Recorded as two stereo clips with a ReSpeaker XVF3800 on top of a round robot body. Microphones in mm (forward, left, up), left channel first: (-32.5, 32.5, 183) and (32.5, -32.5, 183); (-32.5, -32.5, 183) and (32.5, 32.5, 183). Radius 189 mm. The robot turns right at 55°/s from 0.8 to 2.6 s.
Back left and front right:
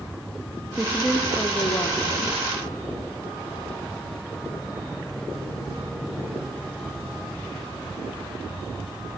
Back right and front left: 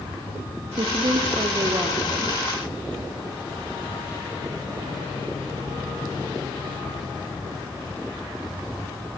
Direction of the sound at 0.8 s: 35° left.